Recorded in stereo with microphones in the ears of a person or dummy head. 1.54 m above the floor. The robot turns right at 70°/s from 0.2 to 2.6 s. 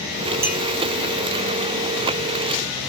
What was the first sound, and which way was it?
A clink, 15° right (ahead or behind).